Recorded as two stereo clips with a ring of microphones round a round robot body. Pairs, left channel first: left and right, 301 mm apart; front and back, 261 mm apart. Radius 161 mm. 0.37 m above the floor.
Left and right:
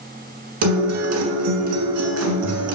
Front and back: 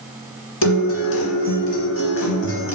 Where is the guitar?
50° right, 1.9 m.